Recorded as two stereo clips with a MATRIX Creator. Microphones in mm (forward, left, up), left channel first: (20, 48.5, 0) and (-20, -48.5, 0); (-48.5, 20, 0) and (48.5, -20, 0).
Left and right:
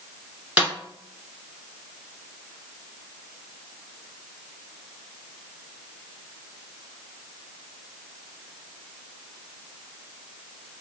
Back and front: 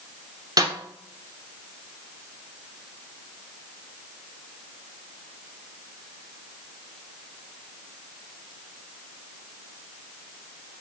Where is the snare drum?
40° right, 0.9 m.